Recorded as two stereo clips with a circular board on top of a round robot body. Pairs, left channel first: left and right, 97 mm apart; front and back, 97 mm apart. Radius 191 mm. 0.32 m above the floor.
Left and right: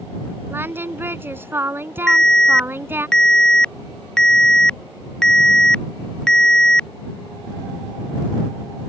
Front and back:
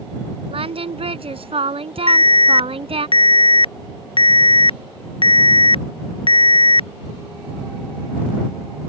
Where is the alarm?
10° left.